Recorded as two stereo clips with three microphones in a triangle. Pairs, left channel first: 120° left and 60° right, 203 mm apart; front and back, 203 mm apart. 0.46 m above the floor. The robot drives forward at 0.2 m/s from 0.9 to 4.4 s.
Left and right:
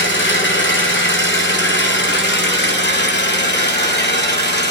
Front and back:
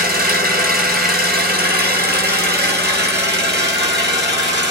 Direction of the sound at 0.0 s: 140° left.